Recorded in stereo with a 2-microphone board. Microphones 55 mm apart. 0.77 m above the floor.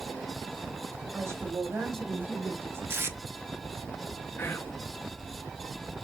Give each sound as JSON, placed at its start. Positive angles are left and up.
{"t": 1.1, "sound": "a woman speaking", "side_deg": -35, "distance_m": 2.0}
{"t": 2.9, "sound": "tape being pulled", "side_deg": -40, "distance_m": 1.0}
{"t": 4.4, "sound": "whispering", "side_deg": 40, "distance_m": 1.2}